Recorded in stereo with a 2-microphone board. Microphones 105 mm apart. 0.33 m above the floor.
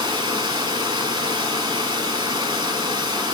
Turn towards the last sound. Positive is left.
turn(degrees=-45)  # may be behind; listen again after turning